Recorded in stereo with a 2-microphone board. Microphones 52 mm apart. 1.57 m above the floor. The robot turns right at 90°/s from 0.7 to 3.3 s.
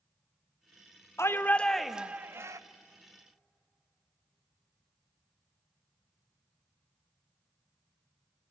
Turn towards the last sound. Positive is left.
turn(degrees=-50)